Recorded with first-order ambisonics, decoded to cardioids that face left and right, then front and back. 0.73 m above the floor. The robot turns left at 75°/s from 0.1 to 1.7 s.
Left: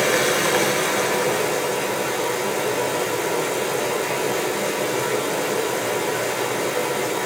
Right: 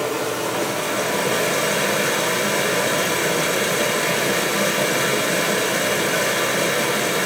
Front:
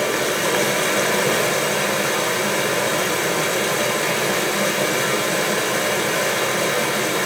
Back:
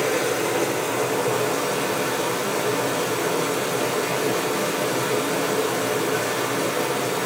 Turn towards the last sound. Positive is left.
turn(degrees=-50)